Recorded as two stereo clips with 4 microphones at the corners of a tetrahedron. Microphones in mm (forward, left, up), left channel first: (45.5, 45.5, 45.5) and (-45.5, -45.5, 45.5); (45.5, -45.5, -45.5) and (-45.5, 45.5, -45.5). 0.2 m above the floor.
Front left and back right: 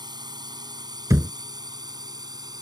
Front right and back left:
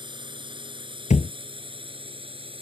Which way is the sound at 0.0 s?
175° left.